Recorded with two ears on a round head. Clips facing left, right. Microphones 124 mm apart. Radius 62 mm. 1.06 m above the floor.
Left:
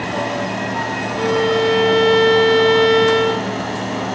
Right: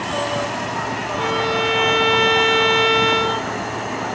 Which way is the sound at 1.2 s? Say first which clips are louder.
Left 6 dB; 25° left (ahead or behind).